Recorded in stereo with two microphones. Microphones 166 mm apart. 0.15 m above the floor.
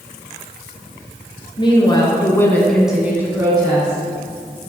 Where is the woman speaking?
30° left (ahead or behind), 2 m; by 4.0 s 30° right (ahead or behind), 2.5 m.